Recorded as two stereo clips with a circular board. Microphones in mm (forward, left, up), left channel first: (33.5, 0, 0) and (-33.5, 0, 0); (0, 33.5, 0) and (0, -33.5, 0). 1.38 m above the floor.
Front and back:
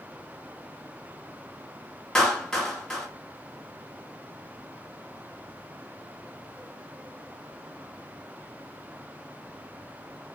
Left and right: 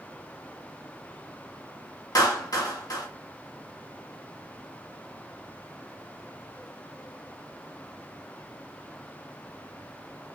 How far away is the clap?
About 1.8 m.